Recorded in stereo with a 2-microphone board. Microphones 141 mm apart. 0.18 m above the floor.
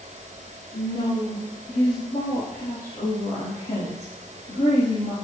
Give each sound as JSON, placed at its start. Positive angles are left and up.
{"t": 0.7, "sound": "a woman speaking", "side_deg": 70, "distance_m": 7.0}